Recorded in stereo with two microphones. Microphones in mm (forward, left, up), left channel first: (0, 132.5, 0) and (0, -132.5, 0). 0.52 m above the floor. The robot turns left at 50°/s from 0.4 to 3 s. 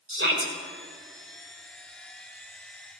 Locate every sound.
0.1 s a shout: 45° right (ahead or behind), 1.9 m; by 0.5 s 40° right (ahead or behind), 1.9 m